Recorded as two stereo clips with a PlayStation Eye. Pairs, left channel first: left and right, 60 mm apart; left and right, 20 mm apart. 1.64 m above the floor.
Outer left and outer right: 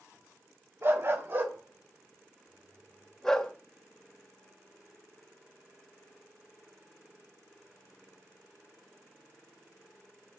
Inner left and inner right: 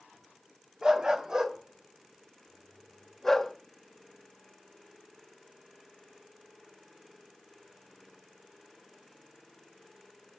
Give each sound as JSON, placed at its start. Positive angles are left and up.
{"t": 0.8, "sound": "a dog barking", "side_deg": -45, "distance_m": 1.5}